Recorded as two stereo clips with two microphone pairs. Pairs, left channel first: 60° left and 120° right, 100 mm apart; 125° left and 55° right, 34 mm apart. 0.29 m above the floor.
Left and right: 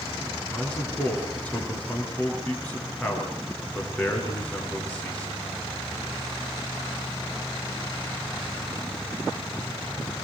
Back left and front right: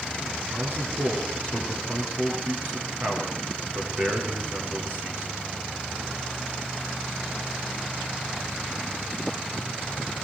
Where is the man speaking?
15° right, 5 m.